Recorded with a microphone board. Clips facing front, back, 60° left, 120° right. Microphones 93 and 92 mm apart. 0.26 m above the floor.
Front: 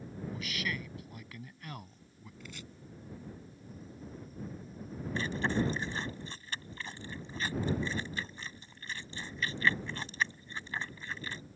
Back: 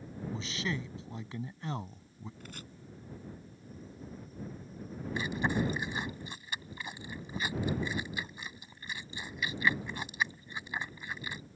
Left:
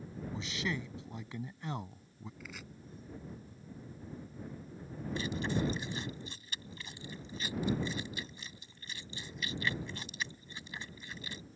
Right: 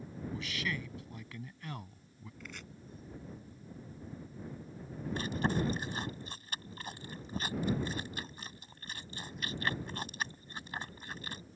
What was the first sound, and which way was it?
A man speaking, 125° left.